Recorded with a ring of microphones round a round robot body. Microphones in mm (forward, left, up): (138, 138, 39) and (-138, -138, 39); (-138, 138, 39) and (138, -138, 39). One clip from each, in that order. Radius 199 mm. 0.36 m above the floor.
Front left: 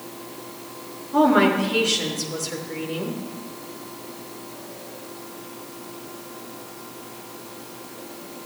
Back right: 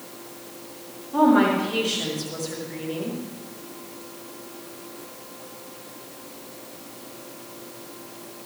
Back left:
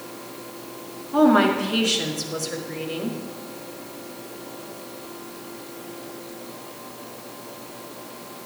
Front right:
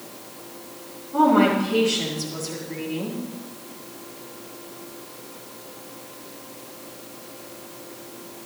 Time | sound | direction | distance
1.1 | a woman speaking | 120° left | 5.5 m